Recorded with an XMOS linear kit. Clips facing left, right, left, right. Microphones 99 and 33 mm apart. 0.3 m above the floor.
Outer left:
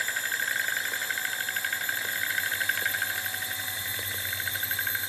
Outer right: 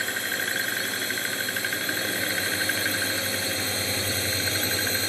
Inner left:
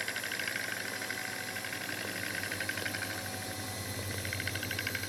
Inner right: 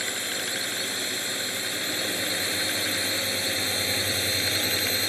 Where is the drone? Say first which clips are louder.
Outer right 2 dB, inner right 6 dB; 70° right (ahead or behind); by 5.1 s 75° right (ahead or behind).